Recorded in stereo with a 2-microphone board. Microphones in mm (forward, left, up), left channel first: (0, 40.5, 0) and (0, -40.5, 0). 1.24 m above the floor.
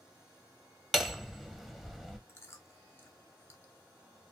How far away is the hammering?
About 0.6 m.